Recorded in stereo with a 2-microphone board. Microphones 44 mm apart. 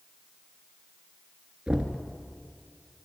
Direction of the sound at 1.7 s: 20° right (ahead or behind).